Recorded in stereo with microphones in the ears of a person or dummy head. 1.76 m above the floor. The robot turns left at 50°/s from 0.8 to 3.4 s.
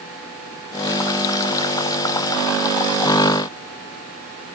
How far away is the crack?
I don't hear a crack.